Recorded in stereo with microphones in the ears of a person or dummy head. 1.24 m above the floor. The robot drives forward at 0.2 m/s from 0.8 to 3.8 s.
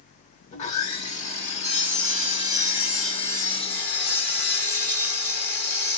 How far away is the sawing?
About 1.2 m.